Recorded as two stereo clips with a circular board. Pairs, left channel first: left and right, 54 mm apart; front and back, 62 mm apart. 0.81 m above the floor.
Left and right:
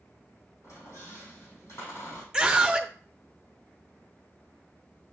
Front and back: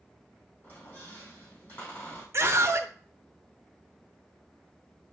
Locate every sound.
0.6 s a squeak: 55° left, 3.5 m
2.3 s a scream: 160° right, 0.8 m